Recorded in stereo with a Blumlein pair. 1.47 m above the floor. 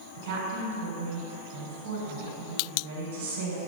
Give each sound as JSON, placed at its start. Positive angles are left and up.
{"t": 0.1, "sound": "a woman speaking", "azimuth_deg": -50, "distance_m": 1.1}